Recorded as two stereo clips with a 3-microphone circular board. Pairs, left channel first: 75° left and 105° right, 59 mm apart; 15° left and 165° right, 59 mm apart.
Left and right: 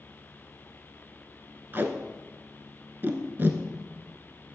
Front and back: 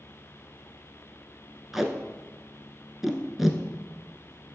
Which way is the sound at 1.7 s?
80° right.